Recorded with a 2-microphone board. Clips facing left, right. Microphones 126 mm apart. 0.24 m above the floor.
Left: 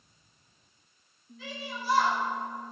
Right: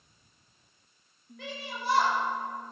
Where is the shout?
60° right (ahead or behind), 6.5 m.